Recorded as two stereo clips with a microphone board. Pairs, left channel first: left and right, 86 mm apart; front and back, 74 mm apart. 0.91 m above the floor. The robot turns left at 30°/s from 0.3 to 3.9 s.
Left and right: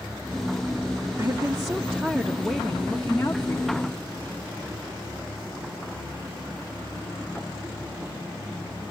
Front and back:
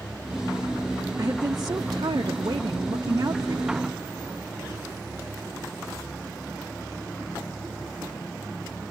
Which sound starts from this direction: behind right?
A woman speaking, at 1.2 s.